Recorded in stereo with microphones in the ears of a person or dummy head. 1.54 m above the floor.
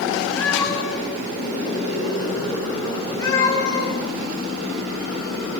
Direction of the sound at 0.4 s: 5° left (ahead or behind).